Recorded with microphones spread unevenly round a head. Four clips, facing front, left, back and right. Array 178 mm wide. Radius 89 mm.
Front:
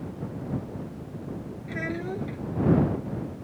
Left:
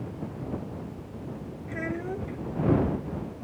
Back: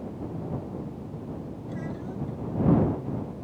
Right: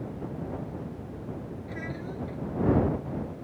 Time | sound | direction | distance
1.7 | a child speaking | 40° left | ?